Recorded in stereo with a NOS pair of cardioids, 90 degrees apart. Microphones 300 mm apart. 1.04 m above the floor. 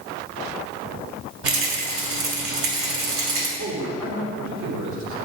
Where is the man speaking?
70° right, 3 m.